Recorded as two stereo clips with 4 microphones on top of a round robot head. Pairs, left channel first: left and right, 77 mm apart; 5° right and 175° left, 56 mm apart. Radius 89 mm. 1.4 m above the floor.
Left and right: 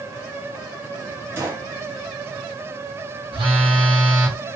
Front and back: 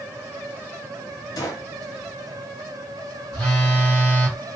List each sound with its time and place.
1.4 s a gunshot: 25° right, 0.6 m
3.3 s a phone buzzing: 75° right, 1.9 m